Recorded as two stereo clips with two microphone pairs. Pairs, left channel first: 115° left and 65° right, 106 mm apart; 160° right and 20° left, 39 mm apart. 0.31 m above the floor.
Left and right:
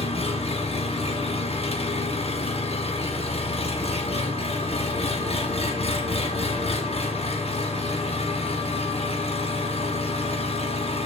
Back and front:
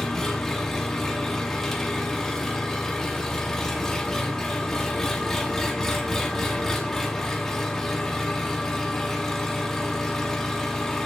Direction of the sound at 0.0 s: 125° left.